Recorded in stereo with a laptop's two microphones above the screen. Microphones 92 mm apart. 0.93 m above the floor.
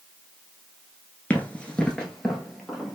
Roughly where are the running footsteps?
Centre.